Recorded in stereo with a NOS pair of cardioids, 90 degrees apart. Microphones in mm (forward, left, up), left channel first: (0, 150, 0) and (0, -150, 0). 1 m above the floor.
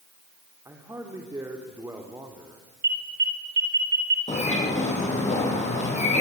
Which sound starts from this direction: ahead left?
A bird, at 4.3 s.